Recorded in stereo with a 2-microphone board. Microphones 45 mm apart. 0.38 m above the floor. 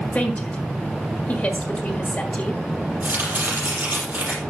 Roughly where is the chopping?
Right.